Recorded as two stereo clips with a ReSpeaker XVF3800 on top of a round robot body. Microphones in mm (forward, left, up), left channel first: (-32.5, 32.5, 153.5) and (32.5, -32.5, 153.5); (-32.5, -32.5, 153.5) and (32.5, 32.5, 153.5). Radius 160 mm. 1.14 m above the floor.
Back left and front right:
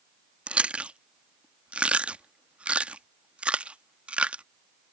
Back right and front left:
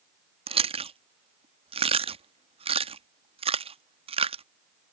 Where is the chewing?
35° left.